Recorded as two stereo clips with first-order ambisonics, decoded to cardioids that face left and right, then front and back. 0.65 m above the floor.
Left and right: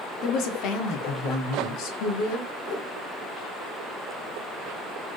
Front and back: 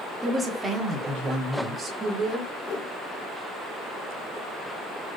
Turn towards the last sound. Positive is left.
turn(degrees=30)